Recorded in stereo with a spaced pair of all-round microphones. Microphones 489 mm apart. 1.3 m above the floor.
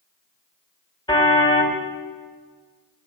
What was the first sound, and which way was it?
A car horn, 10° left (ahead or behind).